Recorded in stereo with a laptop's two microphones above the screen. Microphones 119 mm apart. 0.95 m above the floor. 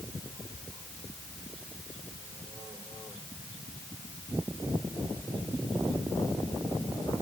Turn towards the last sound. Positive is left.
No sound to turn to.